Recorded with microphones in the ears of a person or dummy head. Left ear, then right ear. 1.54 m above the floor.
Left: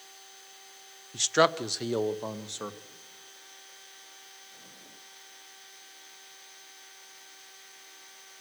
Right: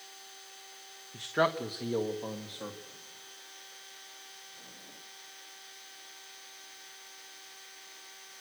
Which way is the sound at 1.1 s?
80° left.